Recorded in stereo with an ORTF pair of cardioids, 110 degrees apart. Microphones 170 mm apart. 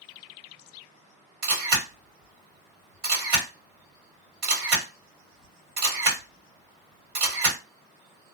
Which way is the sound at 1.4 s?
65° right.